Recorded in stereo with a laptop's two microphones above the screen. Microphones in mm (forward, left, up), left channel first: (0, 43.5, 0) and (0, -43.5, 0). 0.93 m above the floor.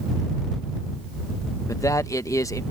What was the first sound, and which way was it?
A man speaking, 40° left (ahead or behind).